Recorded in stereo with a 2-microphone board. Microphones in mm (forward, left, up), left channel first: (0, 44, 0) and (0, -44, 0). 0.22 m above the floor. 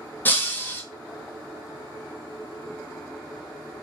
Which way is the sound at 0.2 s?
20° left (ahead or behind).